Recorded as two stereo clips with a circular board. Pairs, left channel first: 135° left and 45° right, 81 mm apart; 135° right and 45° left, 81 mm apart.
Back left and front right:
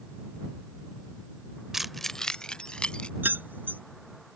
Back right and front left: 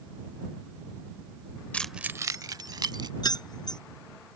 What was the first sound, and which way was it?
Keys jangling, 120° right.